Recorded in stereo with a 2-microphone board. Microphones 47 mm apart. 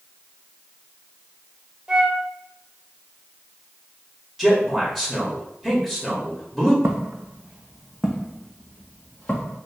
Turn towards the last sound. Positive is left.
turn(degrees=30)  # may be behind; listen again after turning